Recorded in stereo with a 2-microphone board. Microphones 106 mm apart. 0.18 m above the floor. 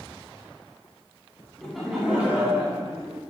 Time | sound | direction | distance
1.6 | laughter | 5° left (ahead or behind) | 1.4 m